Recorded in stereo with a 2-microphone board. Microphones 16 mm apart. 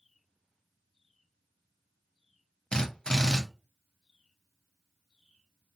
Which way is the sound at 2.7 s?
55° left (ahead or behind).